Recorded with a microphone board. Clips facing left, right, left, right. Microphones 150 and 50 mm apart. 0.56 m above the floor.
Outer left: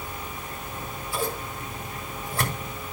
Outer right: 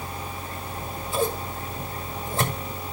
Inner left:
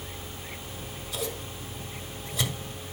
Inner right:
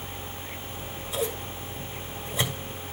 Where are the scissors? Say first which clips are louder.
Outer right 2 dB, inner right 2 dB; 25° right (ahead or behind), 1.9 m.